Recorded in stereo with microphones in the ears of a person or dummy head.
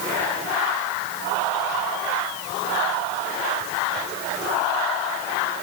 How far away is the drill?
I don't hear a drill.